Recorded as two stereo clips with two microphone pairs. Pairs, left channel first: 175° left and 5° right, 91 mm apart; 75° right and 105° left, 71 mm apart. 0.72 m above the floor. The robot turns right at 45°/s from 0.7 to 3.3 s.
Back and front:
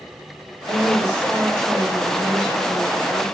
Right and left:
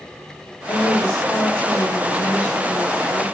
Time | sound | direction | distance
0.7 | a woman speaking | 175° right | 1.8 m